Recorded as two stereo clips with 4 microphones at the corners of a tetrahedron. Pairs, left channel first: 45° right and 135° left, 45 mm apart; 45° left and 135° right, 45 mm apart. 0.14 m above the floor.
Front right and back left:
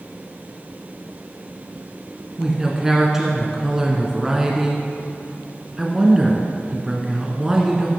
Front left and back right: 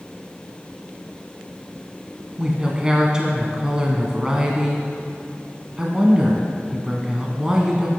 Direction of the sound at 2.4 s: 170° right.